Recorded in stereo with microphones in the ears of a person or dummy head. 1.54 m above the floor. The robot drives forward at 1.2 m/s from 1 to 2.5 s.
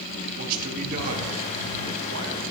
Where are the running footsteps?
I don't hear running footsteps.